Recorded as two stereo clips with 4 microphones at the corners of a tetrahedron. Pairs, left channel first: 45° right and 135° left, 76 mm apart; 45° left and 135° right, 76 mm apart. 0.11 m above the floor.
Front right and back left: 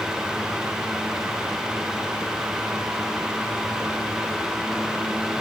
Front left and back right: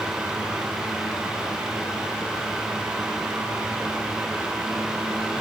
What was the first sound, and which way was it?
Only background noise.